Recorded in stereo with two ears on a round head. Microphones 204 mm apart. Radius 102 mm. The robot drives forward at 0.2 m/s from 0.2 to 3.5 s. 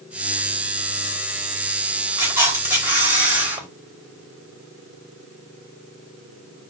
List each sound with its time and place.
2.2 s a camera shutter: 10° right (ahead or behind), 5 m